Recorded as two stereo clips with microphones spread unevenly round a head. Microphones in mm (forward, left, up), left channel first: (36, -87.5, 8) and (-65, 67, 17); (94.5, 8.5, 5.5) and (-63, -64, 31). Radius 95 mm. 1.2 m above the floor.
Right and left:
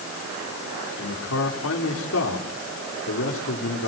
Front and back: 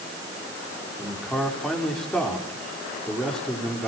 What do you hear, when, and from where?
1.0 s a man speaking: 60° right, 4.5 m